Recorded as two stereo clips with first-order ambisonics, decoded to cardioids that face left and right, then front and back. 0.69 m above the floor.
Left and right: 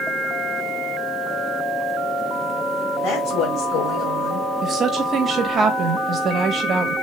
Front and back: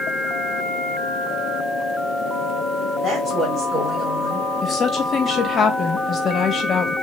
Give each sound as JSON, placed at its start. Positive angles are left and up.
{"t": 3.0, "sound": "a woman speaking", "azimuth_deg": 115, "distance_m": 2.5}
{"t": 4.6, "sound": "a woman speaking", "azimuth_deg": -40, "distance_m": 1.0}